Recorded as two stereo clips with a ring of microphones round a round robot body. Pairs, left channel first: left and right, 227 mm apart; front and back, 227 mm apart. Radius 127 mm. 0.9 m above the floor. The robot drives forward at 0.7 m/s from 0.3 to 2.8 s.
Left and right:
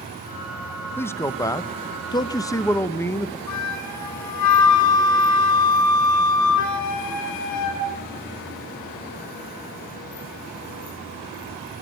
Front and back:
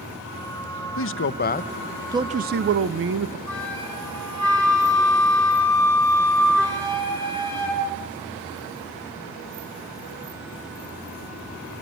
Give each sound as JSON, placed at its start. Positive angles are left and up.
{"t": 1.0, "sound": "a man speaking", "azimuth_deg": 10, "distance_m": 0.8}
{"t": 3.5, "sound": "a flute", "azimuth_deg": 85, "distance_m": 4.5}